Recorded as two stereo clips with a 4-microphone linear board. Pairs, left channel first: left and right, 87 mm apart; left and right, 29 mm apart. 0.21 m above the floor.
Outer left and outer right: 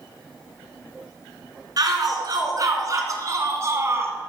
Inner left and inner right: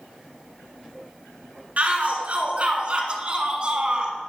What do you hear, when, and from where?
1.8 s a shout: 50° right (ahead or behind), 3 m; by 4.2 s 30° right (ahead or behind), 2 m